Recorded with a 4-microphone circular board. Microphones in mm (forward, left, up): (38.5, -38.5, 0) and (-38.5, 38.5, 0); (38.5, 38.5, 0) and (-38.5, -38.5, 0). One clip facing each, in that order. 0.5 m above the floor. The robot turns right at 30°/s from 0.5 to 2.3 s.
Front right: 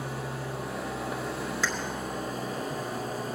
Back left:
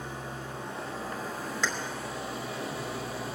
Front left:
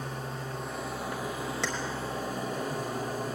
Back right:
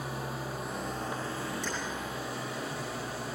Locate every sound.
0.0 s an engine running: 55° right, 3.5 m; by 3.4 s straight ahead, 3.5 m
1.6 s keys jangling: 40° left, 4.5 m